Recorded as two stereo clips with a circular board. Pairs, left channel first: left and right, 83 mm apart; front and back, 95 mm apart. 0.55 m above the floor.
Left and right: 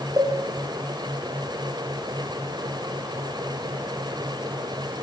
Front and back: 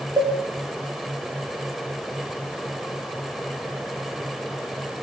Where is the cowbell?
135° right, 6 m.